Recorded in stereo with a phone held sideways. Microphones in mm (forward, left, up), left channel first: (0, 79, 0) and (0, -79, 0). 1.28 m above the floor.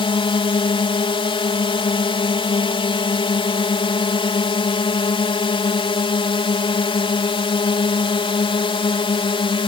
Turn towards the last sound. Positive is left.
turn(degrees=35)  # may be behind; listen again after turning